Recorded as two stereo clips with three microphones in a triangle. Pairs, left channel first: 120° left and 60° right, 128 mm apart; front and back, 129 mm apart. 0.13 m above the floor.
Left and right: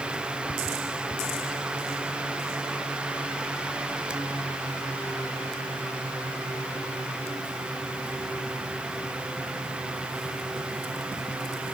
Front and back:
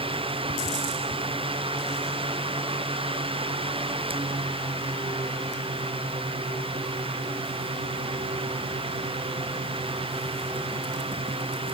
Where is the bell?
I don't hear a bell.